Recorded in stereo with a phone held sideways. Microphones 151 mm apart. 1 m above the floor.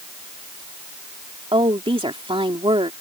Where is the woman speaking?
35° right (ahead or behind).